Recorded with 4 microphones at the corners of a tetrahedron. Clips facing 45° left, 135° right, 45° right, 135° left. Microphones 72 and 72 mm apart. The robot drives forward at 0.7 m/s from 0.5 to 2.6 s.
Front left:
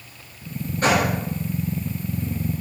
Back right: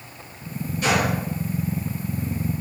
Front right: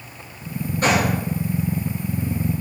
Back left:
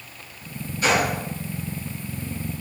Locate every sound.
0.8 s a gunshot: straight ahead, 5 m